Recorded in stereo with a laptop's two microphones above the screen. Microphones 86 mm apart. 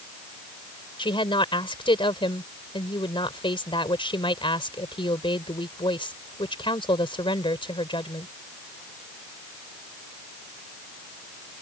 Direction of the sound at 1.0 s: 70° left (ahead or behind).